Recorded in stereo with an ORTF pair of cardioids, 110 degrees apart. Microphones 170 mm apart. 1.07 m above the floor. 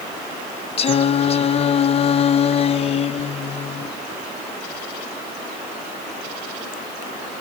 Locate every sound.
0.8 s singing: 35° left, 0.6 m